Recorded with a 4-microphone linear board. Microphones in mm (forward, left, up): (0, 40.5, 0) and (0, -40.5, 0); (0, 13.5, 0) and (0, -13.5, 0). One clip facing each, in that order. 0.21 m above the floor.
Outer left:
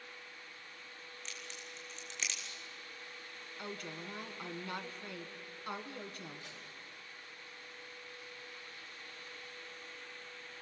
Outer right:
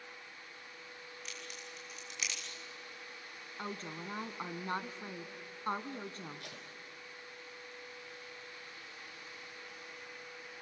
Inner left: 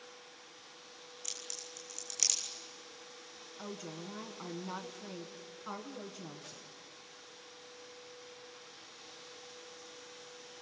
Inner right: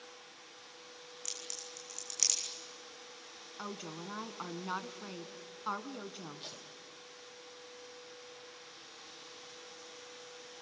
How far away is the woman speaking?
About 1.6 m.